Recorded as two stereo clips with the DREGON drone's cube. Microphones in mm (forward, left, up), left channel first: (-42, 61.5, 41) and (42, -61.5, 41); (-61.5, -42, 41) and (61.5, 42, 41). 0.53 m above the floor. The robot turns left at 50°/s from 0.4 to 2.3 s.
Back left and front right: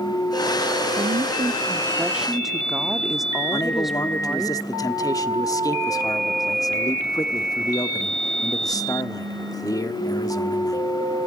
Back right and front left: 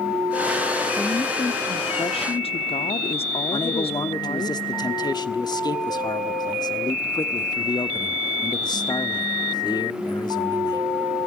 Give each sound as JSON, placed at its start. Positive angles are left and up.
{"t": 1.0, "sound": "a woman speaking", "azimuth_deg": -75, "distance_m": 0.9}
{"t": 3.5, "sound": "a man speaking", "azimuth_deg": 175, "distance_m": 1.2}